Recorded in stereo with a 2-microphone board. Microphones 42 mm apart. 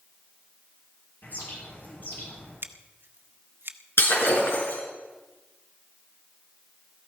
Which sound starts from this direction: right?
Scissors, at 2.6 s.